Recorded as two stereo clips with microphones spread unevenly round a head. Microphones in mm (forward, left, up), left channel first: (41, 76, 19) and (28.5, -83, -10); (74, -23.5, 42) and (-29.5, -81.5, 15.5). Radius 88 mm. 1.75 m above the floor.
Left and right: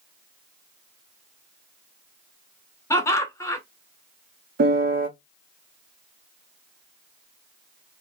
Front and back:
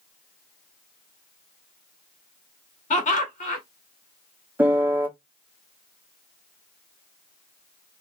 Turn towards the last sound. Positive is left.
turn(degrees=-65)